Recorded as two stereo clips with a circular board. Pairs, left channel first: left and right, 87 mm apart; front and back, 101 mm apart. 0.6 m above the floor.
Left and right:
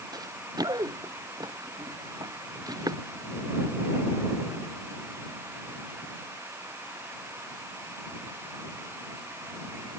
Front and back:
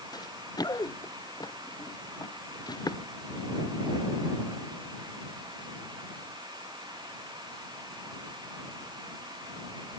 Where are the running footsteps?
50° right.